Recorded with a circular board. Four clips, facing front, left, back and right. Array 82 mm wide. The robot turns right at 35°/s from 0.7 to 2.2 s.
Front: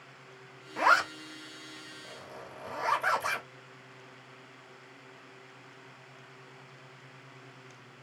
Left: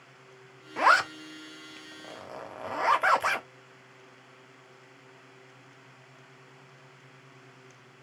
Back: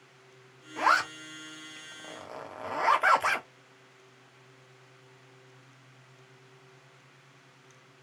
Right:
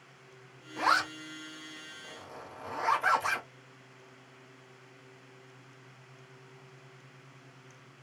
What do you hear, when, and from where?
0.8 s a zipper: 80° left, 1.1 m; by 3.5 s 130° left, 1.1 m